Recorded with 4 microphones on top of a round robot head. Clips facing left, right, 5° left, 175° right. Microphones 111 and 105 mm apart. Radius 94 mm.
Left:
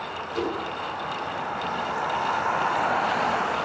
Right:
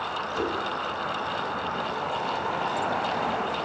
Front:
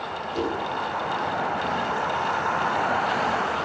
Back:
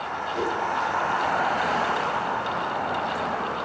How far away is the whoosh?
About 6.5 m.